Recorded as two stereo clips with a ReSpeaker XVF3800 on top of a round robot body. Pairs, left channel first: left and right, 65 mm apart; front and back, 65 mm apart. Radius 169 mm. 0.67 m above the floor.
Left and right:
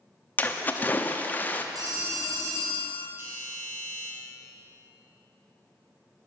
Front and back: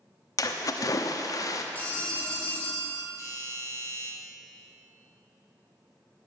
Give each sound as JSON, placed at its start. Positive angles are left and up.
{"t": 0.4, "sound": "a splash", "azimuth_deg": 25, "distance_m": 1.0}
{"t": 1.8, "sound": "a phone ringing", "azimuth_deg": -65, "distance_m": 3.0}
{"t": 3.2, "sound": "a doorbell", "azimuth_deg": -35, "distance_m": 5.0}